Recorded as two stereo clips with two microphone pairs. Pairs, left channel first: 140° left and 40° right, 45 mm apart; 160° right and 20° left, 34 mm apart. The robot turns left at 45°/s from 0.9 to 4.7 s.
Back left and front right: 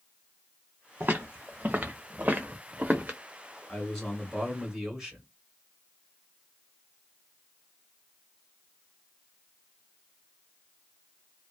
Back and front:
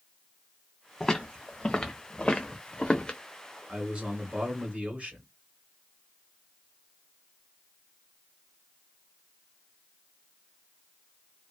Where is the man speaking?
75° left, 1.8 m; by 5.2 s 30° left, 1.8 m.